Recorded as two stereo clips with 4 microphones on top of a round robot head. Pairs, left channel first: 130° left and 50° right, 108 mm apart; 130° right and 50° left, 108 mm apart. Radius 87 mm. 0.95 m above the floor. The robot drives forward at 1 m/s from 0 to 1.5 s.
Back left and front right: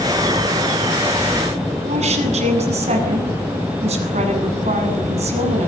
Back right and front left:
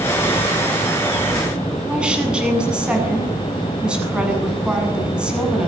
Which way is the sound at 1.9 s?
30° right.